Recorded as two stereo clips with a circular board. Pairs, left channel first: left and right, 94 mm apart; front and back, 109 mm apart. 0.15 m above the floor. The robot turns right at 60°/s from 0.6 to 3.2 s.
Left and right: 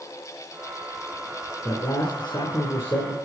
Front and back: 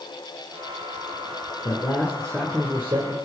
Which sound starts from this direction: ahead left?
A man speaking, at 1.6 s.